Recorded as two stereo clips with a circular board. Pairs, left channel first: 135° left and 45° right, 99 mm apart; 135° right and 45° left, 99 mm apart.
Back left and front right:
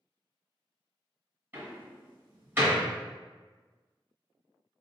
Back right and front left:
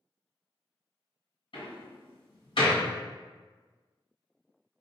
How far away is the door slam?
About 2.0 m.